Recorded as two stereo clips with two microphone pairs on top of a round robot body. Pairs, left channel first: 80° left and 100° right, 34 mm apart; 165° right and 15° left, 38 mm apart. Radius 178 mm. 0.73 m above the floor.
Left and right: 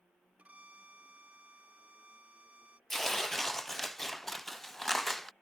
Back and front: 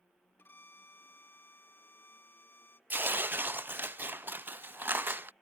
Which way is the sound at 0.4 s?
145° right.